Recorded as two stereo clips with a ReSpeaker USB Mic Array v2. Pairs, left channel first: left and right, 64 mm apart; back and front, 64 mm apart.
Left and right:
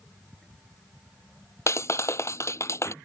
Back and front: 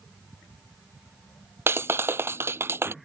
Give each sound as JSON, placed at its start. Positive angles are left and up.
{"t": 1.7, "sound": "a clap", "azimuth_deg": 50}